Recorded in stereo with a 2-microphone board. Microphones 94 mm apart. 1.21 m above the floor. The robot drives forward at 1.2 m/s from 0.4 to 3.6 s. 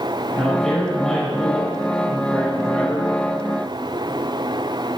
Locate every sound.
0.3 s a man speaking: 10° left (ahead or behind), 6.5 m; by 3.1 s 20° left (ahead or behind), 3 m